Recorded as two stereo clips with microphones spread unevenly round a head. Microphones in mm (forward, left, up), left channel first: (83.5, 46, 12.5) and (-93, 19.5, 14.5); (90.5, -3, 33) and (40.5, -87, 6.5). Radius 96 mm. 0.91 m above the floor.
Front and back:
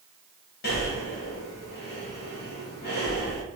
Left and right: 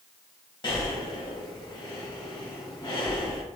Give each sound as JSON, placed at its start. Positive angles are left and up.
{"t": 0.6, "sound": "breathing", "azimuth_deg": 35, "distance_m": 1.4}